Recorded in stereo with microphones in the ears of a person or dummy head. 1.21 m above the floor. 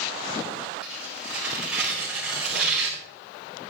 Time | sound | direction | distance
0.8 | tearing paper | 10° right (ahead or behind) | 3.5 m